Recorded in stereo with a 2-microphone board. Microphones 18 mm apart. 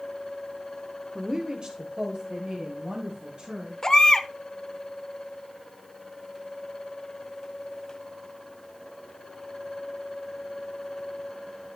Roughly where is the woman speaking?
Right.